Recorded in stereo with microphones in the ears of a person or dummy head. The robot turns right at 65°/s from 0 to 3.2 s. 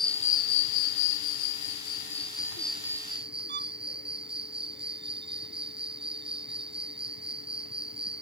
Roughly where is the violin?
Right.